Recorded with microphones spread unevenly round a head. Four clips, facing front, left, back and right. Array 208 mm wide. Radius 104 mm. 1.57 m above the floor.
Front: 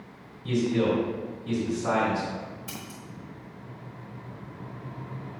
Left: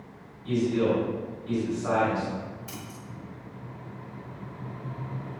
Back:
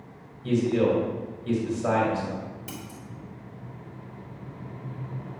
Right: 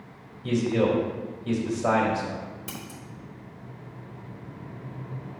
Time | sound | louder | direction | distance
0.4 | a man speaking | right 1 dB, back 2 dB | 105° right | 2.5 m
2.7 | scissors | right 1 dB, back 1 dB | 140° right | 3 m